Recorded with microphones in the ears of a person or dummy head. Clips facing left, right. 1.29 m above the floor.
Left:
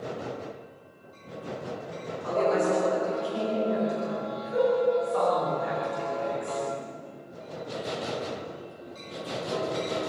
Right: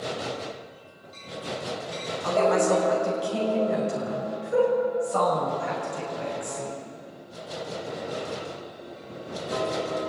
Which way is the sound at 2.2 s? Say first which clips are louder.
Right 3 dB; 85° right.